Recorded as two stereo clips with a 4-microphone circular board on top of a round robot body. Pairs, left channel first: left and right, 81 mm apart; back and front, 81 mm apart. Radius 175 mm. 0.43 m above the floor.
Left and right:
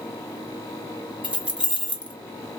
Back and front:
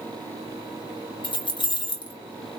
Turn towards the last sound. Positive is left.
turn(degrees=-165)